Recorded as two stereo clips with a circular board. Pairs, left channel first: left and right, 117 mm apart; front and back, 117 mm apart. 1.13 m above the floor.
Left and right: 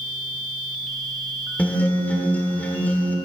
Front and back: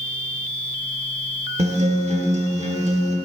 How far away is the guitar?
About 1.6 m.